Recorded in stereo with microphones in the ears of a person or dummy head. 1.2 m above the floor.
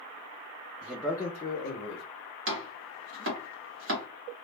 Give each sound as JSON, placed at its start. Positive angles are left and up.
{"t": 0.8, "sound": "a man speaking", "side_deg": -15, "distance_m": 0.6}
{"t": 2.5, "sound": "chopping", "side_deg": -55, "distance_m": 1.0}